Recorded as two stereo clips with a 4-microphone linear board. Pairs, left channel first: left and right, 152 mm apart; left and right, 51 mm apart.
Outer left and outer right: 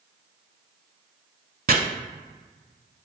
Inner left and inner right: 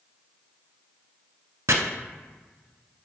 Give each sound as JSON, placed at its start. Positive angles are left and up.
{"t": 1.7, "sound": "chopping", "side_deg": -75, "distance_m": 0.6}